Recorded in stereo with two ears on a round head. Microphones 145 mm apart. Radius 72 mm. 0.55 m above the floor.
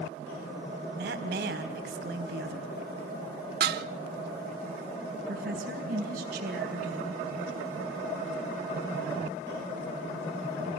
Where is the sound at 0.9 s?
65° right (ahead or behind), 3 m.